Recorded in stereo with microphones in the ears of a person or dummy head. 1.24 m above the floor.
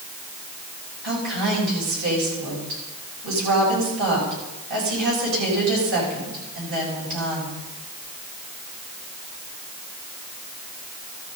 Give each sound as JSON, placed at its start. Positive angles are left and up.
{"t": 1.0, "sound": "a woman speaking", "side_deg": -60, "distance_m": 7.5}